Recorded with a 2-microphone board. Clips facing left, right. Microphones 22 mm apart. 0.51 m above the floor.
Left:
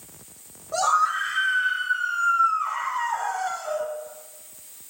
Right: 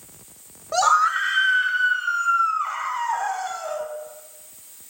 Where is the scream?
50° right (ahead or behind), 1.2 m; by 3.9 s 30° right (ahead or behind), 3.5 m.